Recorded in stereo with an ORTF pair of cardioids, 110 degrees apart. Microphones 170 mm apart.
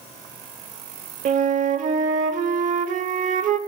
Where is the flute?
50° right, 0.9 m.